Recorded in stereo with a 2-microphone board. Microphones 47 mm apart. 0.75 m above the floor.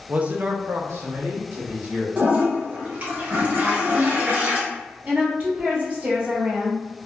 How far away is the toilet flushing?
About 1.1 m.